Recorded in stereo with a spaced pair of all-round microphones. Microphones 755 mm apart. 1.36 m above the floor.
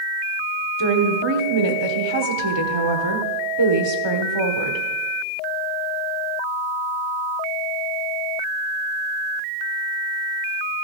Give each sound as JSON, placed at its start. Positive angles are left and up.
{"t": 0.8, "sound": "a woman speaking", "side_deg": -35, "distance_m": 1.2}